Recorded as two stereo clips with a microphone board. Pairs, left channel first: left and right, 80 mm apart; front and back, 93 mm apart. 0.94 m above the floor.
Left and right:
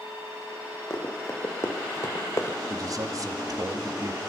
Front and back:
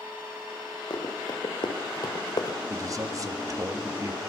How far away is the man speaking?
About 1.8 m.